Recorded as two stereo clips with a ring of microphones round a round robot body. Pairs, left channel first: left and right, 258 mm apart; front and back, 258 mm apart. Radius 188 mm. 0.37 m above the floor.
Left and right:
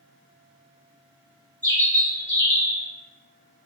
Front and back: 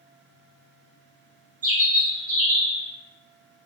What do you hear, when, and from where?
1.6 s a bird: 150° right, 1.6 m